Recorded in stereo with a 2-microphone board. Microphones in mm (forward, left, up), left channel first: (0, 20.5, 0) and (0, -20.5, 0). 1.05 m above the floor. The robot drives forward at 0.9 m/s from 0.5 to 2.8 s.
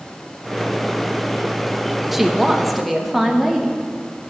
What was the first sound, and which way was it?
A woman speaking, 10° right (ahead or behind).